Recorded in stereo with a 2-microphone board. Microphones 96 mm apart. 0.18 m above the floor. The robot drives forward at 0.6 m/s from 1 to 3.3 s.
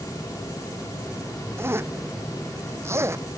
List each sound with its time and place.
1.6 s a zipper: 25° right (ahead or behind); by 3.2 s 30° right (ahead or behind)